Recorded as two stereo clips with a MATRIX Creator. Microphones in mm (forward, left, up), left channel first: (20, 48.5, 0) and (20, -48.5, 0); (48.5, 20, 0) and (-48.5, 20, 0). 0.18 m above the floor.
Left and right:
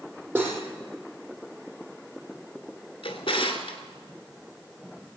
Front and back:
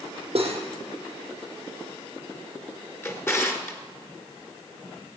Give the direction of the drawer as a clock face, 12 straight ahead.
10 o'clock.